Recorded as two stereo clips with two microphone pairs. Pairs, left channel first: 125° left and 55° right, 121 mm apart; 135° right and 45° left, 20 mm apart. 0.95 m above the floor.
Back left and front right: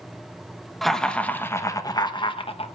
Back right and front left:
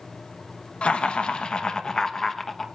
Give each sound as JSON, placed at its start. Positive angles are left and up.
{"t": 0.8, "sound": "laughter", "azimuth_deg": -145, "distance_m": 1.1}